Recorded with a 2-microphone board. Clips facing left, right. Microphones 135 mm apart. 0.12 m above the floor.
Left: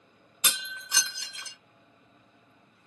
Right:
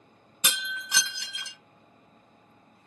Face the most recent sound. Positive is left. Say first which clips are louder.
# right 3 dB
turn(degrees=-70)  # may be behind; listen again after turning